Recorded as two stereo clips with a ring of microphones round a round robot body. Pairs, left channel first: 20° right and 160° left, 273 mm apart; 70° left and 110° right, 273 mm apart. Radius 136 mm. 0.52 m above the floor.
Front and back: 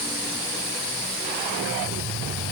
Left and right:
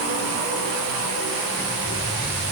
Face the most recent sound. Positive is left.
No sound to turn to.